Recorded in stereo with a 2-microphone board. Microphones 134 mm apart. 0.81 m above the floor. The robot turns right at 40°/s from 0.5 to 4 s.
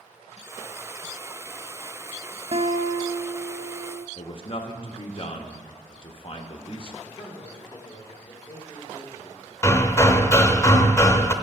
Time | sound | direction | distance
2.5 | a guitar | 135° right | 0.5 m
4.2 | a man speaking | 40° left (ahead or behind) | 1.0 m
7.0 | a man speaking | 25° left (ahead or behind) | 1.8 m
9.6 | hammering | 20° left (ahead or behind) | 0.5 m